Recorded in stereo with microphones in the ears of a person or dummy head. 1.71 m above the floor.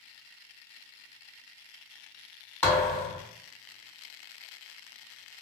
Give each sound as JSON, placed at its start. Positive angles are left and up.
{"t": 2.6, "sound": "a thud", "side_deg": 5, "distance_m": 1.8}